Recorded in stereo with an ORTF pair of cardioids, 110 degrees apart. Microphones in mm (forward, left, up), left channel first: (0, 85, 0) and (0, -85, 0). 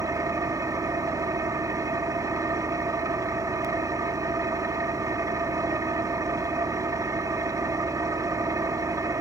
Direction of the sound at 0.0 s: 20° right.